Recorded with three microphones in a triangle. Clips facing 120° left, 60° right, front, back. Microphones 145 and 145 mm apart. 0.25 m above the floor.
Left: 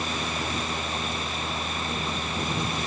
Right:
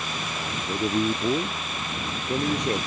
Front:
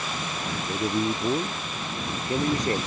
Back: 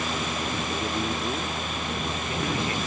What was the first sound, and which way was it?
A man speaking, 70° right.